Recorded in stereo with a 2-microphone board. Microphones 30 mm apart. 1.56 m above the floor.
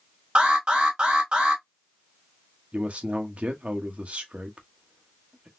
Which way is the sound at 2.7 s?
45° right (ahead or behind).